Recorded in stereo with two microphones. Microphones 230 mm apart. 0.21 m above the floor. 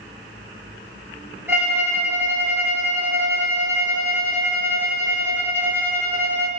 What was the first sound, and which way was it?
A violin, 10° right (ahead or behind).